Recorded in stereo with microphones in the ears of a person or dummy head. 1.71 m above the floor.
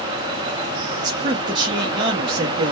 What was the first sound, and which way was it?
A man speaking, 25° right (ahead or behind).